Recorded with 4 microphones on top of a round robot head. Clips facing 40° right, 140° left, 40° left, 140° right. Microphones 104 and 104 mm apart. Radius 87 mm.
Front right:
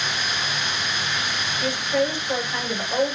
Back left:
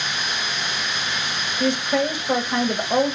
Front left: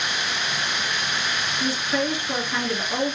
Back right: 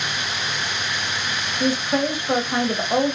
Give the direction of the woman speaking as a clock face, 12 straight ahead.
6 o'clock.